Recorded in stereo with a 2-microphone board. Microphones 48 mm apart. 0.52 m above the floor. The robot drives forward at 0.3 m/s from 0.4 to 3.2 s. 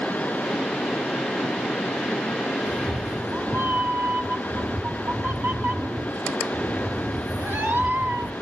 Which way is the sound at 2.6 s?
60° right (ahead or behind).